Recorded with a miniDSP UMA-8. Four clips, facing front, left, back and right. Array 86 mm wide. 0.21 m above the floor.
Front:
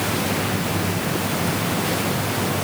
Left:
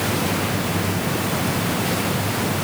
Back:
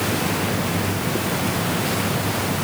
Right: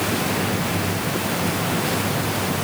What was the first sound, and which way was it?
Only background noise.